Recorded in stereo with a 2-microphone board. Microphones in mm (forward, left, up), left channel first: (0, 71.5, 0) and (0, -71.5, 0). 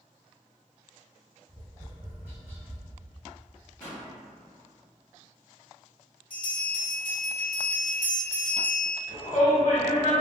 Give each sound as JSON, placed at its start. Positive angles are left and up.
{"t": 1.5, "sound": "tapping", "side_deg": -15, "distance_m": 1.1}
{"t": 3.8, "sound": "a pop", "side_deg": 15, "distance_m": 2.0}
{"t": 6.3, "sound": "a bell", "side_deg": 40, "distance_m": 1.9}
{"t": 9.1, "sound": "a shout", "side_deg": 30, "distance_m": 1.4}